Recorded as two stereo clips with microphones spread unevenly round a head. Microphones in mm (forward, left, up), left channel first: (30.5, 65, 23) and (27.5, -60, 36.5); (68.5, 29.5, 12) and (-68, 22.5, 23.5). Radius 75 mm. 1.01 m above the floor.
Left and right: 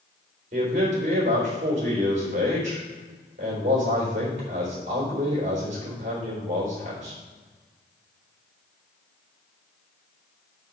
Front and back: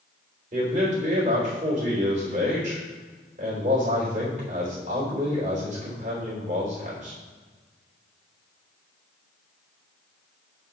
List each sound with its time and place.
0.5 s a man speaking: 130° right, 3.5 m